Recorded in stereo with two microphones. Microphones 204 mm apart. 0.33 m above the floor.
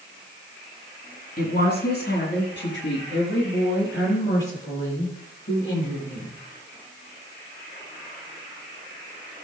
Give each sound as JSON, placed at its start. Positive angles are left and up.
{"t": 1.4, "sound": "a woman speaking", "side_deg": 45, "distance_m": 3.0}